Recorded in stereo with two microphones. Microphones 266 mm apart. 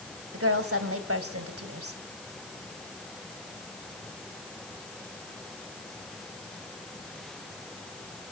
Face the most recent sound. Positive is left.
turn(degrees=-55)  # may be behind; listen again after turning